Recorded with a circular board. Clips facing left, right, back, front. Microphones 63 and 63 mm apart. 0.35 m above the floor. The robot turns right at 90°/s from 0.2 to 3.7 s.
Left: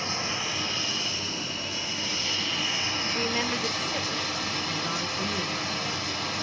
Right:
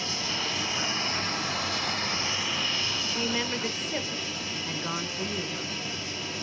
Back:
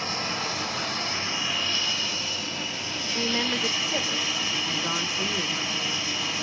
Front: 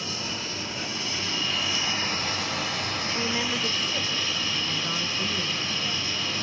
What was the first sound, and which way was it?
Running water, 145° left.